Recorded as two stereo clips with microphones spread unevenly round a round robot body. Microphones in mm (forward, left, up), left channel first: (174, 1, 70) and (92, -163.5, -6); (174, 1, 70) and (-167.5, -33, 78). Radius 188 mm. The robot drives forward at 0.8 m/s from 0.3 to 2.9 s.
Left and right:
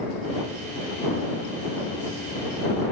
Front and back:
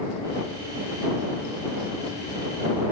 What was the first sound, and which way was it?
Only background noise.